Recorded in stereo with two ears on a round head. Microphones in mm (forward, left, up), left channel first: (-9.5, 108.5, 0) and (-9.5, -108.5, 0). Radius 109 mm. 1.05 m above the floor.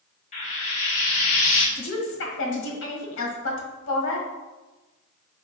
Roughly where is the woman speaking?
Left.